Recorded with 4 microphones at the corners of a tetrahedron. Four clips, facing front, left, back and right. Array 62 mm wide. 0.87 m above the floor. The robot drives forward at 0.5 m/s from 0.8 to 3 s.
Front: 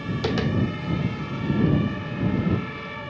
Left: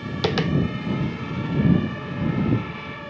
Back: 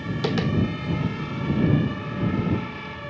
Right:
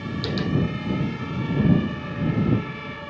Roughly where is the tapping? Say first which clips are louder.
Left 5 dB, even; left.